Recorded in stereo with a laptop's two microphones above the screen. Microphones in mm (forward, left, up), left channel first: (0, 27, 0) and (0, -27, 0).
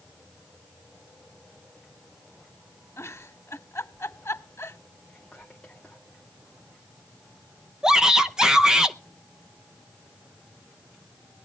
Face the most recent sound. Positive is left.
turn(degrees=-10)  # may be behind; listen again after turning